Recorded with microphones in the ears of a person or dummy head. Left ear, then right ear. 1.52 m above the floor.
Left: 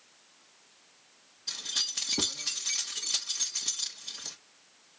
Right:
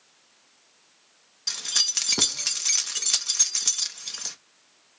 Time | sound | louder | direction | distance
1.5 | keys jangling | right 7 dB | 60° right (ahead or behind) | 1.1 m